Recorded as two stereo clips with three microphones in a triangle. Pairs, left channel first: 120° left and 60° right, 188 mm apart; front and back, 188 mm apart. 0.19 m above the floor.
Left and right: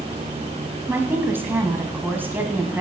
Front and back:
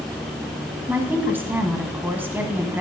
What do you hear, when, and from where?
0.9 s a woman speaking: 120° right, 1.0 m